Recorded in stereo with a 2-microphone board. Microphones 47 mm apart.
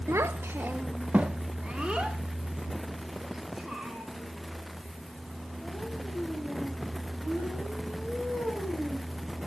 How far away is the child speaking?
About 0.5 m.